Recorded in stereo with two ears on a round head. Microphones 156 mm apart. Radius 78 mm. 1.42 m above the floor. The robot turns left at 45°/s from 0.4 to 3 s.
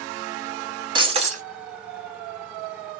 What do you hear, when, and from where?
0.9 s breaking glass: 25° right (ahead or behind), 1.4 m; by 1.4 s 45° right (ahead or behind), 1.4 m